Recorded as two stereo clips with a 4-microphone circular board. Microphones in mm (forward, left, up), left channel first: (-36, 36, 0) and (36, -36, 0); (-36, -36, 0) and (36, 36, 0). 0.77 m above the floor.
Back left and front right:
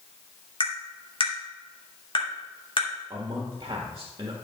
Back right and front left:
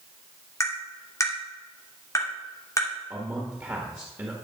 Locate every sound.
0.6 s tapping: 165° left, 2.5 m
3.1 s a man speaking: 15° right, 1.5 m